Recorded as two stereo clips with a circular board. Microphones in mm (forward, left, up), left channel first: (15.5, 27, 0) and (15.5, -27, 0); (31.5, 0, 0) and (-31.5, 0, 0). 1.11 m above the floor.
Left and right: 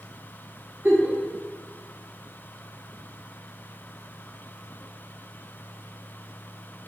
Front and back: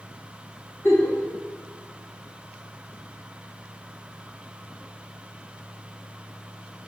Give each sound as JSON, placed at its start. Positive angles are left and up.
{"t": 0.8, "sound": "a giggle", "azimuth_deg": -40, "distance_m": 1.3}